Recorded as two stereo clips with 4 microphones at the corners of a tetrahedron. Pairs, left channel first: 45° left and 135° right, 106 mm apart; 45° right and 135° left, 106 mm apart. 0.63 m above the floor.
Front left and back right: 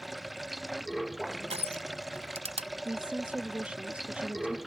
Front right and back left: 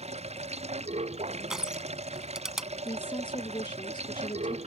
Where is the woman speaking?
60° right.